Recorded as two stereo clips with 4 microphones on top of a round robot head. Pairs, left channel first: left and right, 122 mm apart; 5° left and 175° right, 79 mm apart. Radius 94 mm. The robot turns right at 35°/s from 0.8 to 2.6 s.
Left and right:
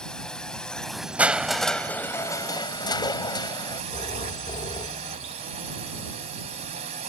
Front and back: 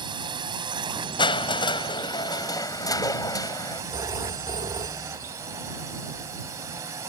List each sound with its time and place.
0.0 s a drone: 175° left; by 7.1 s 125° right
1.2 s crushing: 15° right; by 3.8 s 35° left
3.9 s a phone ringing: 150° left